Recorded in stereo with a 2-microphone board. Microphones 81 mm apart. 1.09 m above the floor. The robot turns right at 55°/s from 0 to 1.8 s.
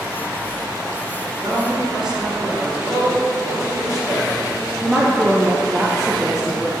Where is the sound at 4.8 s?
5° right (ahead or behind), 0.6 m.